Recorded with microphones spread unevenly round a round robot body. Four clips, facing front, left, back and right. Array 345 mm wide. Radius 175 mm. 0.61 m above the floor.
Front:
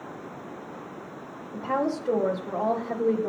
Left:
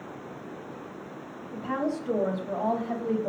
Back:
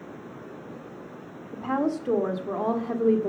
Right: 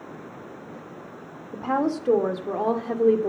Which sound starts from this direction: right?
A woman speaking, at 1.5 s.